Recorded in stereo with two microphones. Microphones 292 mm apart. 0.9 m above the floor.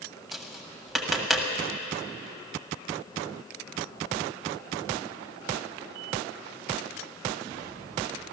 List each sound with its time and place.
0.3 s tapping: centre (ahead or behind), 1.6 m